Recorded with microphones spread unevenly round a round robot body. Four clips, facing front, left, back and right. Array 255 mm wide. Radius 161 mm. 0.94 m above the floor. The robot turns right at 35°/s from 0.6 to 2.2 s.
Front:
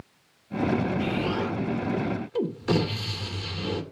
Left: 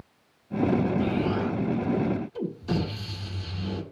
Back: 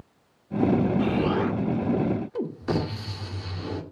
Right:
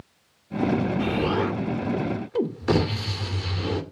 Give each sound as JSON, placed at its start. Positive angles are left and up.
{"t": 1.0, "sound": "an explosion", "azimuth_deg": -120, "distance_m": 2.0}